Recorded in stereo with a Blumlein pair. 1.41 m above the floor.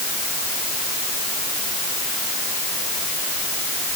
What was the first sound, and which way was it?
Only background noise.